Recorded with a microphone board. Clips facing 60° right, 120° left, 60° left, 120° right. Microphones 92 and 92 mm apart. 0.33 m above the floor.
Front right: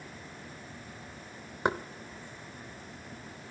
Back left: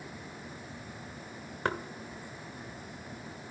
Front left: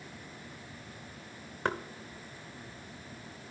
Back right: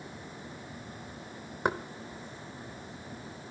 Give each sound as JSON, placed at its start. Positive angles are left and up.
{"t": 1.6, "sound": "knocking", "azimuth_deg": -85, "distance_m": 0.7}